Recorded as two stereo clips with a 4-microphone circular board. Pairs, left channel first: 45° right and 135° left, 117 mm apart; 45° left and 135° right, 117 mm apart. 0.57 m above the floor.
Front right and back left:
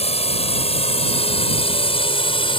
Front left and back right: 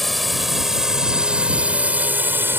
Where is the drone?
45° right; by 2.6 s 70° right.